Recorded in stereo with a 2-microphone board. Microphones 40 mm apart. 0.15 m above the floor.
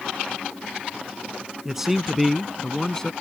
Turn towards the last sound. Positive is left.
turn(degrees=15)  # may be behind; listen again after turning